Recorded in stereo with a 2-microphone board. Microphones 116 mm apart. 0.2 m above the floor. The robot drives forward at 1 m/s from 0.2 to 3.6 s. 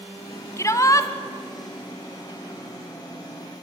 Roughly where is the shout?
Left.